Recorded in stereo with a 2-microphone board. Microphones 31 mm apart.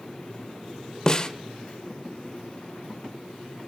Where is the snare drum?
25° left (ahead or behind), 1.1 m.